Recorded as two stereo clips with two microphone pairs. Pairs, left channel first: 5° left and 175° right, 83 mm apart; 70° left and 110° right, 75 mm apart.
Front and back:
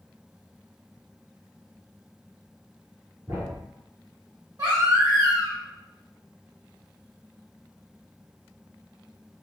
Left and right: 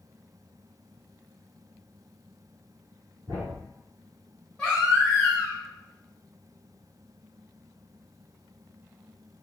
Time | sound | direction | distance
3.3 | a thud | 120° right | 1.4 m
4.6 | a baby crying | 145° left | 1.2 m